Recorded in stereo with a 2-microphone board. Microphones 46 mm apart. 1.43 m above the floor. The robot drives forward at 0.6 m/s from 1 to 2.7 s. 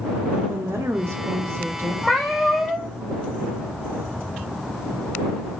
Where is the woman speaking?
70° right (ahead or behind), 0.7 m; by 1.9 s 55° right (ahead or behind), 0.8 m.